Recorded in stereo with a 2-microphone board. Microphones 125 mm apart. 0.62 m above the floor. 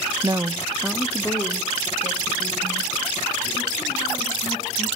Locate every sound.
0.2 s a woman speaking: 35° right (ahead or behind), 0.8 m; by 4.9 s 35° left (ahead or behind), 7 m